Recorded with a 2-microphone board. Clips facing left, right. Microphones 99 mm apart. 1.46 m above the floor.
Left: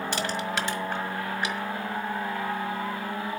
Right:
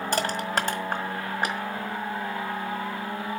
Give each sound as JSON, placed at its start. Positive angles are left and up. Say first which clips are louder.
{"t": 0.1, "sound": "crushing", "louder": "right 5 dB", "side_deg": -45, "distance_m": 1.7}